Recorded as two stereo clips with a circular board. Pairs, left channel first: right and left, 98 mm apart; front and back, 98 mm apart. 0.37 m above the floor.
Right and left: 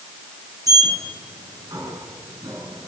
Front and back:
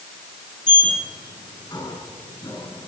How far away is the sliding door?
About 6 m.